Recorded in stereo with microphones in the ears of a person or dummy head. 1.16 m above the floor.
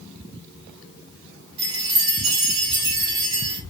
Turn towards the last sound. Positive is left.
turn(degrees=-75)  # may be behind; listen again after turning